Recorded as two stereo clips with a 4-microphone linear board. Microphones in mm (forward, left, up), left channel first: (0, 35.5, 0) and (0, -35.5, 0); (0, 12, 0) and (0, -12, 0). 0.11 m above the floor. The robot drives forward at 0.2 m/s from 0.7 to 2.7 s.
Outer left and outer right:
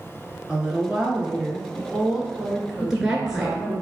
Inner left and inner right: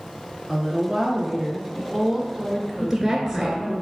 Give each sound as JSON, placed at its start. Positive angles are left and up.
{"t": 0.5, "sound": "a woman speaking", "side_deg": -10, "distance_m": 1.3}
{"t": 2.8, "sound": "a woman speaking", "side_deg": -10, "distance_m": 1.3}